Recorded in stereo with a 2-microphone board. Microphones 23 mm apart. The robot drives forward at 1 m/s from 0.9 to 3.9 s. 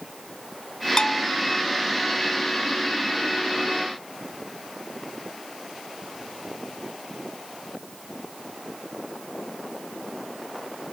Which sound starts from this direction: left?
A bell, at 1.0 s.